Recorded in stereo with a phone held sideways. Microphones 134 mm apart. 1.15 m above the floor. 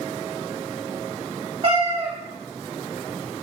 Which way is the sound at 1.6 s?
40° right (ahead or behind).